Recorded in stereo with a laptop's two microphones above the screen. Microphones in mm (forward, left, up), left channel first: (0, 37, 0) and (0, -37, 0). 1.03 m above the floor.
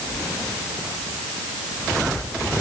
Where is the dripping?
I don't hear dripping.